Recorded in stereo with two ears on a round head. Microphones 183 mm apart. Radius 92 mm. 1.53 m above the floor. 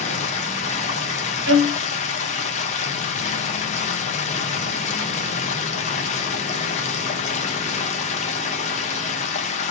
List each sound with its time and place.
0.0 s running water: 35° left (ahead or behind), 0.7 m
1.5 s a violin: 65° right (ahead or behind), 0.9 m